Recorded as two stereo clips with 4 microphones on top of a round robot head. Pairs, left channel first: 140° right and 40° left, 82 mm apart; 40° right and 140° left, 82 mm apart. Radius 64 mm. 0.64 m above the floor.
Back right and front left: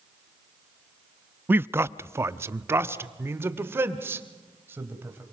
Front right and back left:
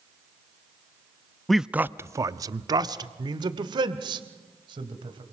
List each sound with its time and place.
1.5 s a man speaking: 40° left, 0.5 m; by 5.2 s 105° left, 3.5 m